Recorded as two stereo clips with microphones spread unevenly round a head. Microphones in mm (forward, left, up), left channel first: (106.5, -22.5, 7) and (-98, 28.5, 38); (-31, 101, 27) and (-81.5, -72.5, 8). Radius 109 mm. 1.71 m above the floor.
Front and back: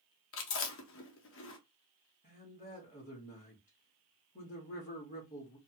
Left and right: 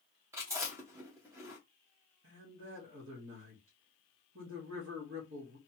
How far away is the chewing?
About 0.8 m.